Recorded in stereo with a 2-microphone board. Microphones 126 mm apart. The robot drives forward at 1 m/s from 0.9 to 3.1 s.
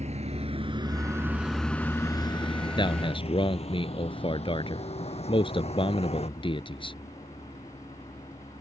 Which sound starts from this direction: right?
A vehicle, at 0.0 s.